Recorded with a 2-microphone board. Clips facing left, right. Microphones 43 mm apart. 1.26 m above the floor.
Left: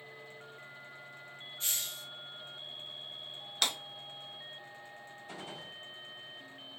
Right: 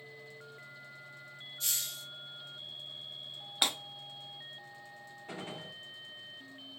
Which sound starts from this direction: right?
A gunshot, at 5.3 s.